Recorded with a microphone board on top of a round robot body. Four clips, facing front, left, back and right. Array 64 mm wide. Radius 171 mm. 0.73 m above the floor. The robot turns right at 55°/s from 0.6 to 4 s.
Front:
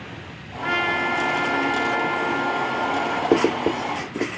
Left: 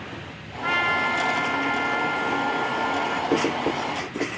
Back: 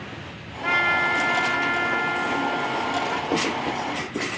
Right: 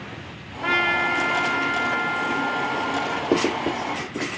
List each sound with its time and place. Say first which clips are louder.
0.6 s a trumpet: right 1 dB, back 1 dB; 95° right, 2 m; by 3.2 s 50° left, 2 m
3.3 s writing: right 3 dB, front 5 dB; 15° right, 1.1 m; by 4.3 s 25° left, 1.1 m